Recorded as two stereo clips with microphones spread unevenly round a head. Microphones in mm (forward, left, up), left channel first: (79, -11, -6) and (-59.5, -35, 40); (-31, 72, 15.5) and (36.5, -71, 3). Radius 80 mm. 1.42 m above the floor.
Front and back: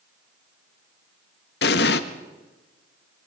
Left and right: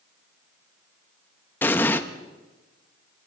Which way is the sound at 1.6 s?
40° left.